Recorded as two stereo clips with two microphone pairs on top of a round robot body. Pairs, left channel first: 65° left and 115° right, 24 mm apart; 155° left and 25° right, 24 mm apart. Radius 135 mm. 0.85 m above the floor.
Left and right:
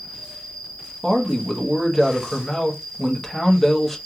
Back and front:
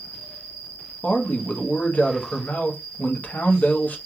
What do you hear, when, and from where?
0.0 s an insect: 130° left, 1.1 m
1.0 s a man speaking: 150° left, 1.1 m